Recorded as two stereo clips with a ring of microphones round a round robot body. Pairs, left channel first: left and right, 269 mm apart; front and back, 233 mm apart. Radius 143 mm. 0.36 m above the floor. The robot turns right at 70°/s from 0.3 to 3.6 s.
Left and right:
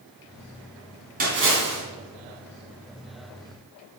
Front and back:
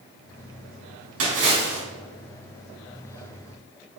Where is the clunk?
I don't hear a clunk.